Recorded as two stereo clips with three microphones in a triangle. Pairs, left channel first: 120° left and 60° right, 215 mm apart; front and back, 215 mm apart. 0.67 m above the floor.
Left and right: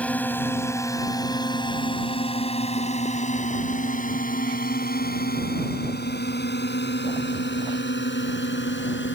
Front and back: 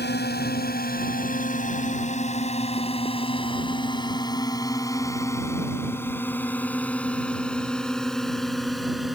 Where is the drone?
35° left; by 9.2 s 90° left.